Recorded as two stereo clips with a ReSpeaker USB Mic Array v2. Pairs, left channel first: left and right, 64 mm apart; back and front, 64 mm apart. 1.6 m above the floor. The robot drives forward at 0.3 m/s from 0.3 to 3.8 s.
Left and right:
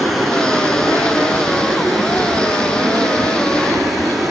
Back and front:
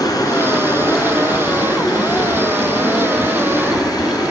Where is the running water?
Straight behind, 3.5 m.